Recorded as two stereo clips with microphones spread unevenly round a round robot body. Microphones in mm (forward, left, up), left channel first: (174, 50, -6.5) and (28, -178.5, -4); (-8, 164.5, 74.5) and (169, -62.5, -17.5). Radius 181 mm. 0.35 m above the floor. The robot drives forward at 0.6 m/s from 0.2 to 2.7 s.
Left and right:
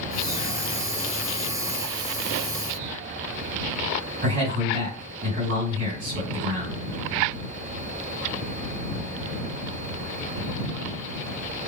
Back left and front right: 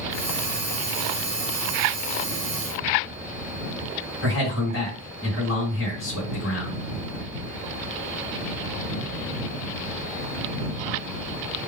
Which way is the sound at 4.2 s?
175° right.